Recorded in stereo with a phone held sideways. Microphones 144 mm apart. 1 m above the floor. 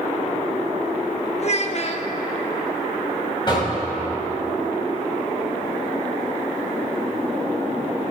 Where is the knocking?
30° left (ahead or behind), 5 m.